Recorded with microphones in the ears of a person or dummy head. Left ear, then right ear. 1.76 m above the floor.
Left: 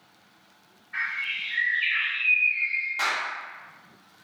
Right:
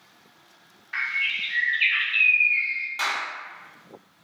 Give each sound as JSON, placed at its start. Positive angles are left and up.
{"t": 0.9, "sound": "a bird", "side_deg": -65, "distance_m": 0.6}
{"t": 3.0, "sound": "a clap", "side_deg": -10, "distance_m": 1.0}